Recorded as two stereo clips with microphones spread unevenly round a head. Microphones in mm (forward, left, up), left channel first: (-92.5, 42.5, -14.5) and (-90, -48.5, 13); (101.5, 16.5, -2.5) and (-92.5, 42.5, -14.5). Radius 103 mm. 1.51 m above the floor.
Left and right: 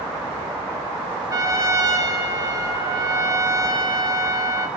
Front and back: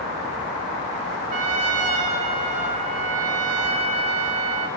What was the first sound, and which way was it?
A trumpet, 130° right.